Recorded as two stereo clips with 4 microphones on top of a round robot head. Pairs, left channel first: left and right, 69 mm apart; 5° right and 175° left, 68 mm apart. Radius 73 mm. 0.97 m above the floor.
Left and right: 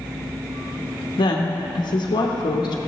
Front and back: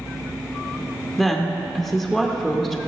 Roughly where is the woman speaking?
Left.